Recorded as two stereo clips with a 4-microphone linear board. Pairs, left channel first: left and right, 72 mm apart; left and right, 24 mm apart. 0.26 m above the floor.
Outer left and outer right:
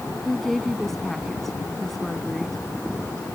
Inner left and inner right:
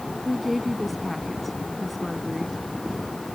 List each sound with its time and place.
0.2 s a woman speaking: 5° left (ahead or behind)